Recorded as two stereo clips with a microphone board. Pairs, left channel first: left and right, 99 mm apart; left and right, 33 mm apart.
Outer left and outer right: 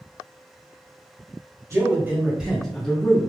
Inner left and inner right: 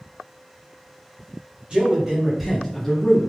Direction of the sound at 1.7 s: 30° right (ahead or behind).